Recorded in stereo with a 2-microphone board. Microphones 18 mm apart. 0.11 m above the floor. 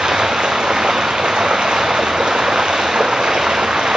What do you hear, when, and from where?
0.0 s running water: 55° right (ahead or behind), 0.8 m